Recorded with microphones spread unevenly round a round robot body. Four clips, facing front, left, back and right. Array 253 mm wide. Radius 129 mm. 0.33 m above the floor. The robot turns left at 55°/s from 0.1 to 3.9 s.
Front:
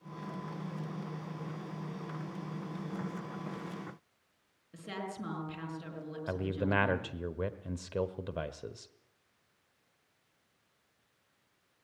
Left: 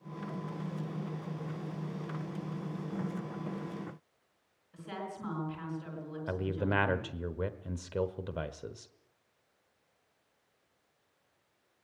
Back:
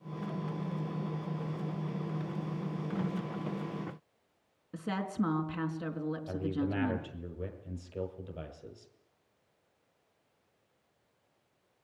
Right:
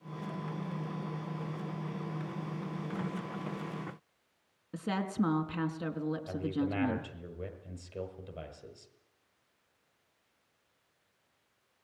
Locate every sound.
4.7 s a woman speaking: 110° right, 3.5 m
6.3 s a man speaking: 40° left, 1.3 m